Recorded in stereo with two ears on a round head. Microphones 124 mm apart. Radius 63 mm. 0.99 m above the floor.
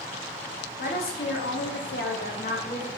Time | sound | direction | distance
0.8 | a woman speaking | 75° left (ahead or behind) | 1.5 m